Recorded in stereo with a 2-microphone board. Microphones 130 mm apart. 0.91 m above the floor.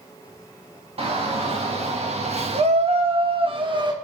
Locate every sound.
1.0 s a shout: 50° right (ahead or behind), 1.6 m; by 3.9 s 35° right (ahead or behind), 1.4 m